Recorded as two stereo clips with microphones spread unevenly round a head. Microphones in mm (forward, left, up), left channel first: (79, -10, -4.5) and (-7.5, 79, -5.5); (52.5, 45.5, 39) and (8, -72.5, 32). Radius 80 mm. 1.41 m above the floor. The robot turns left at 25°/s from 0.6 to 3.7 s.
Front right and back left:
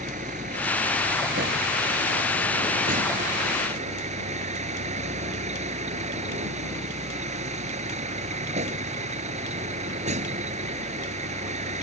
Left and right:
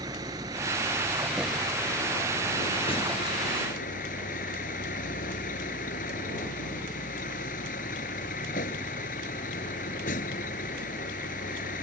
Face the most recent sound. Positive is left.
turn(degrees=105)